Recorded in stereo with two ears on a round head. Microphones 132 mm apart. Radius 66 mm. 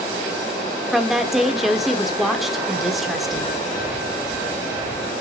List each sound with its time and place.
0.9 s a woman speaking: centre (ahead or behind), 1.4 m